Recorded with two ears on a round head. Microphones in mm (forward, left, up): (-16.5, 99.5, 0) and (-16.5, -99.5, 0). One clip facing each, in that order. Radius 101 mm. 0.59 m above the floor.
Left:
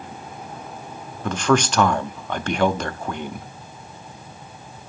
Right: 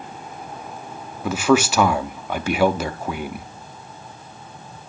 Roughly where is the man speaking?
Centre.